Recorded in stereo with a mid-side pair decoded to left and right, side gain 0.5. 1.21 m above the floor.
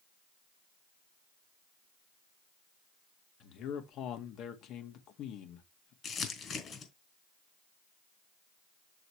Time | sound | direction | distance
3.4 | a man speaking | 70° left | 1.8 m
6.0 | crumpling | 50° left | 3 m